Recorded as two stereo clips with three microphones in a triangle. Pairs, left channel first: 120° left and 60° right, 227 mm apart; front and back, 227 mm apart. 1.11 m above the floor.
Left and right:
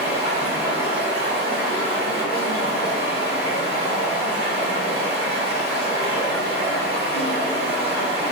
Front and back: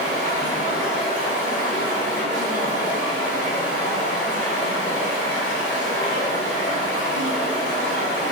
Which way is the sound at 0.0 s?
120° left.